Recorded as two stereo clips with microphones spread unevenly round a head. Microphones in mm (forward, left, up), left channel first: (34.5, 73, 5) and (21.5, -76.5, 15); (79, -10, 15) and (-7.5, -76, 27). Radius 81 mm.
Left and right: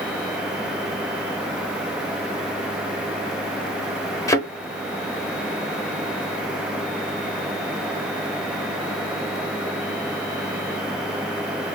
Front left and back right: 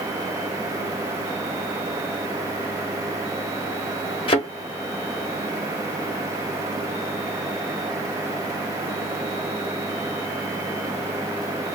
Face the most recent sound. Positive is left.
turn(degrees=25)